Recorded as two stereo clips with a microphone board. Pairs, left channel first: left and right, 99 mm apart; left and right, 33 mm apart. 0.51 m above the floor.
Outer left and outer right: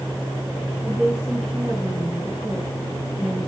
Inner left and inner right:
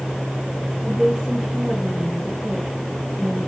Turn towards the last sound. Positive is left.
turn(degrees=-10)  # may be behind; listen again after turning